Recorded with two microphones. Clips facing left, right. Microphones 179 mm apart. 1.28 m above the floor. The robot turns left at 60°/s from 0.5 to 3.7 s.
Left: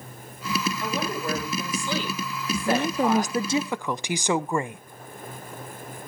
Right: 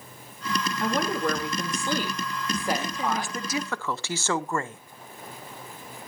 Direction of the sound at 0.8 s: 55° right.